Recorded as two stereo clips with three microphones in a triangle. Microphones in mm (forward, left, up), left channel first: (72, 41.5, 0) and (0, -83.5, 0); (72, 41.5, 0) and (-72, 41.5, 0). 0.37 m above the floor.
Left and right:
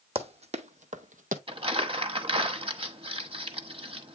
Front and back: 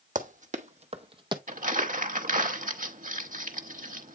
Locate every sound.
0.1 s running footsteps: 160° right, 1.1 m; by 1.4 s 125° right, 0.8 m
1.5 s crumpling: 165° right, 0.9 m